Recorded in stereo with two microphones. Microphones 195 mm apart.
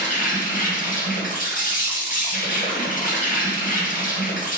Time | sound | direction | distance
0.0 | an insect | 45° left (ahead or behind) | 0.9 m